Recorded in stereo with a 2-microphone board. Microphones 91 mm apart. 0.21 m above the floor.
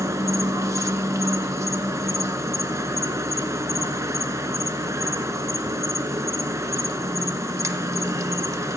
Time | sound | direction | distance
0.0 | an insect | 35° right (ahead or behind) | 0.9 m